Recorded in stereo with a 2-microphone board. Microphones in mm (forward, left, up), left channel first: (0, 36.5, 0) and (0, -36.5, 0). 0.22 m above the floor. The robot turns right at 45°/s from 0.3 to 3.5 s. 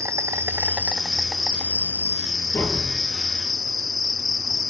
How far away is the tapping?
About 5.5 m.